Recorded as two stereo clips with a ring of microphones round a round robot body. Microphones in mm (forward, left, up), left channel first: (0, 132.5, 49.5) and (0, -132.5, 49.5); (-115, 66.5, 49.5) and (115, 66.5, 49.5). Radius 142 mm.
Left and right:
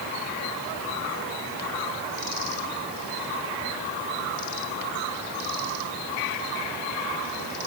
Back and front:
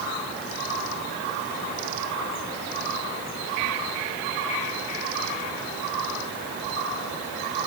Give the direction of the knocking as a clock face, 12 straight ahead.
No knocking in this recording.